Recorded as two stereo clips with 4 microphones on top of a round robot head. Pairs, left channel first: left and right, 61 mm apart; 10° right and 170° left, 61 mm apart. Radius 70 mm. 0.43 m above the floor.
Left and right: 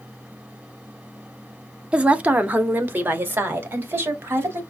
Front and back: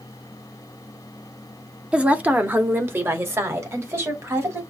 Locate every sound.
1.9 s a woman speaking: 135° right, 0.8 m; by 4.6 s 140° right, 2 m